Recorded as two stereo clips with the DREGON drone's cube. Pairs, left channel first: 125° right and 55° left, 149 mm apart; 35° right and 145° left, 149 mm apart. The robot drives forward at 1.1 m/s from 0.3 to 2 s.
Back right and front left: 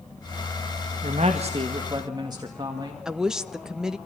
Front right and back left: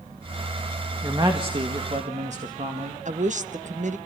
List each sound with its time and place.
1.0 s a man speaking: 80° left, 1.9 m; by 3.0 s 115° left, 2 m
3.0 s a woman speaking: 140° left, 1.0 m